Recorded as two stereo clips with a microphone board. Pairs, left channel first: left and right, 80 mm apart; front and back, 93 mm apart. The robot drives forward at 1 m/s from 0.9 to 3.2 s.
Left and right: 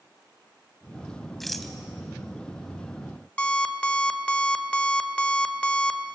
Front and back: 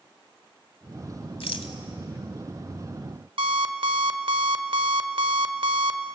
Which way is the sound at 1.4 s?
Straight ahead.